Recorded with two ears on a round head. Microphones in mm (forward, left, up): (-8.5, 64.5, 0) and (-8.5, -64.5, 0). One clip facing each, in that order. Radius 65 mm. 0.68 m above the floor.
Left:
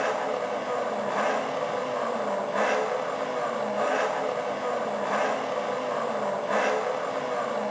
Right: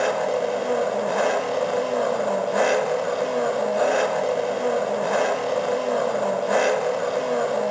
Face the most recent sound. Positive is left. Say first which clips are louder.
# right 5 dB
turn(degrees=-45)  # may be behind; listen again after turning